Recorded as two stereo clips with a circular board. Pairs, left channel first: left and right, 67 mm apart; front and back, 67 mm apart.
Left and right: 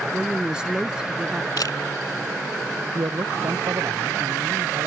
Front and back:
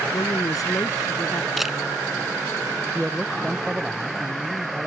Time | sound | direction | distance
0.1 | a woman speaking | 15° right | ?
1.6 | a camera shutter | 95° left | ?
3.0 | a man speaking | 100° right | ?